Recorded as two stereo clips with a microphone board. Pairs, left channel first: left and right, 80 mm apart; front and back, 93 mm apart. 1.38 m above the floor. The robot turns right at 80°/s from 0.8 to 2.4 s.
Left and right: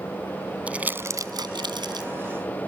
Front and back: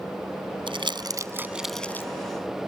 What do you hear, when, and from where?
0.7 s crumpling: 165° right; by 2.1 s 60° right